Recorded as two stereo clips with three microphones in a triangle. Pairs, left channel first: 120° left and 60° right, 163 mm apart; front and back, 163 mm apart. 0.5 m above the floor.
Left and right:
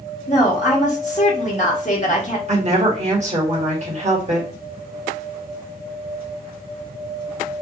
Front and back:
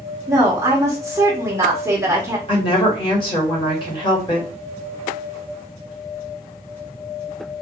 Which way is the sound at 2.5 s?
45° right.